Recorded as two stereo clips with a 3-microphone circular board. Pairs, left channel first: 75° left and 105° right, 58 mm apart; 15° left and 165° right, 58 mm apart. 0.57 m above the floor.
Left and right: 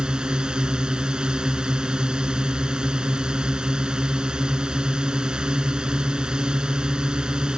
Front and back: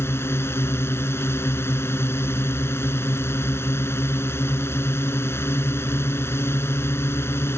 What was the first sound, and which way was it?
A drone, 30° right.